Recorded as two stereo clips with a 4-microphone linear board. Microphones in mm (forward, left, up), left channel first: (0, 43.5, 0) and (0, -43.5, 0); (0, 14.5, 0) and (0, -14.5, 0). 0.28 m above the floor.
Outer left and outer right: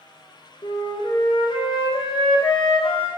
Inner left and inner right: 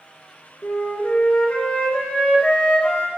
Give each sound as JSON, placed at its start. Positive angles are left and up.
{"t": 0.6, "sound": "a flute", "side_deg": 75, "distance_m": 1.0}